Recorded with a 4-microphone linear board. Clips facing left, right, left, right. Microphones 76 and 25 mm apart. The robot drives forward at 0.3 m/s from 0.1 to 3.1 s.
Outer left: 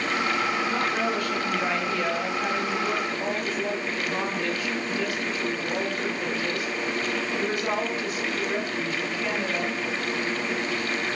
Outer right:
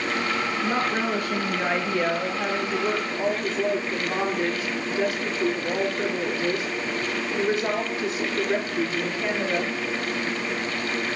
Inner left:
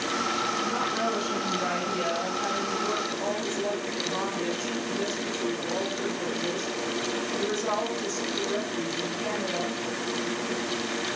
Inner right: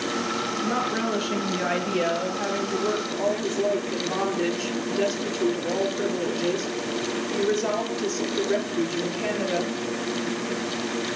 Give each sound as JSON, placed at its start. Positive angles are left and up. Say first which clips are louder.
{"t": 0.6, "sound": "a woman speaking", "louder": "outer right 1 dB, inner right 2 dB", "side_deg": -30, "distance_m": 4.5}